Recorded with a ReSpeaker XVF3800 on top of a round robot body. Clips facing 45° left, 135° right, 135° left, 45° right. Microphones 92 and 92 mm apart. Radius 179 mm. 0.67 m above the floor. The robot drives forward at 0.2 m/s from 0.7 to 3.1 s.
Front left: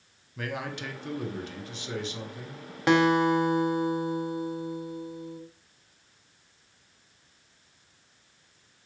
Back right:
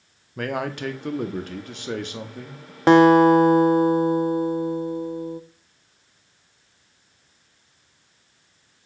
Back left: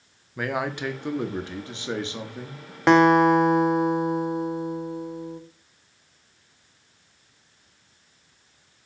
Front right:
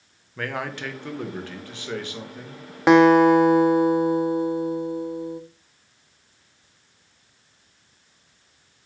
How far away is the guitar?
About 0.6 m.